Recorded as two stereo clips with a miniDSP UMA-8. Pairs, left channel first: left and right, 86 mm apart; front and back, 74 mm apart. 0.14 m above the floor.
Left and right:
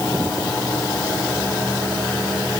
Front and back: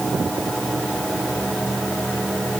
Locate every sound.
Only background noise.